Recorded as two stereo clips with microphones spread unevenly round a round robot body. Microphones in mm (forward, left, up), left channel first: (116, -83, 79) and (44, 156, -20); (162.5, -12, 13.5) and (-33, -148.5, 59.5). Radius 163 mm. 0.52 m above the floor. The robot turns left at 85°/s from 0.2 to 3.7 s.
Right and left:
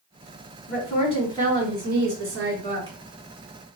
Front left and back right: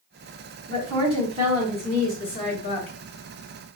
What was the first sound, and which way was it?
A woman speaking, 120° right.